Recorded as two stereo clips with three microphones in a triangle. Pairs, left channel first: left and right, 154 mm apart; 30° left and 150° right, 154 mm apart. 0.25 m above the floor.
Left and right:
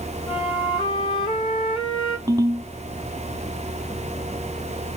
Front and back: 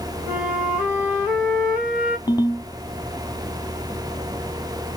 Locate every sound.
0.3 s a flute: 130° left, 1.8 m
2.3 s a ringtone: 30° right, 0.5 m